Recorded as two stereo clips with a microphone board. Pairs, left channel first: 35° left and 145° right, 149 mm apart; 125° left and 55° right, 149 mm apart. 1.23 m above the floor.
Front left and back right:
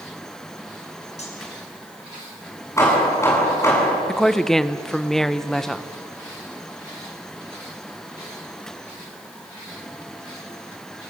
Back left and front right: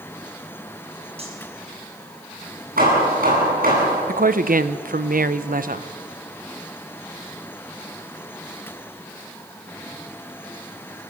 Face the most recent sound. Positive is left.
turn(degrees=-55)